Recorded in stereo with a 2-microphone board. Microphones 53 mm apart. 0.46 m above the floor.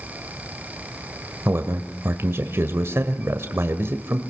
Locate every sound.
1.4 s a man speaking: 50° right (ahead or behind), 1.5 m